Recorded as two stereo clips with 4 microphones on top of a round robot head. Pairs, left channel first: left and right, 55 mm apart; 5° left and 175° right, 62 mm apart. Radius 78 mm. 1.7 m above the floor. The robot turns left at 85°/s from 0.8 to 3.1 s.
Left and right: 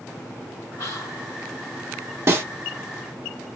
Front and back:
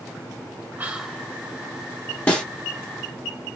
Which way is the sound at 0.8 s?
125° left.